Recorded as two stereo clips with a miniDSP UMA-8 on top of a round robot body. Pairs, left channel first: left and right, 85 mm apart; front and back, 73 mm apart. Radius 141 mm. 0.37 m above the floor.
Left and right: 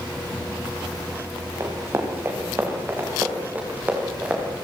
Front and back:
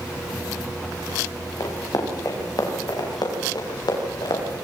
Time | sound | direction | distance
1.6 | running footsteps | 35° right | 5.5 m